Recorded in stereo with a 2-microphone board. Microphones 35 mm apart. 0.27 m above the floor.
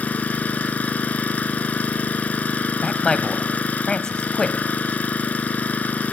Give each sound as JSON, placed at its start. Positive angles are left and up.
{"t": 0.0, "sound": "an engine running", "side_deg": 55, "distance_m": 0.9}
{"t": 2.8, "sound": "a man speaking", "side_deg": 25, "distance_m": 1.3}